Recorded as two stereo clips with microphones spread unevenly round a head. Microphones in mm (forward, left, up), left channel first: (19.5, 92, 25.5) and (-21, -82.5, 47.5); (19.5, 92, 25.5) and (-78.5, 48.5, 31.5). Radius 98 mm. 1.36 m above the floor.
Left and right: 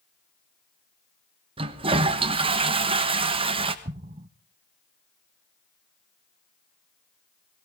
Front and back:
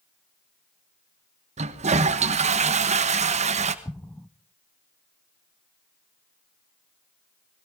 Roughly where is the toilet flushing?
Behind.